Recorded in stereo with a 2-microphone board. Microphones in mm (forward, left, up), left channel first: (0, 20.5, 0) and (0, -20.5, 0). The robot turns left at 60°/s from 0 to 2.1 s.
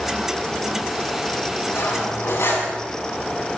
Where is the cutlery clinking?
70° left (ahead or behind), 6.5 m; by 2.7 s 80° left, 6.5 m.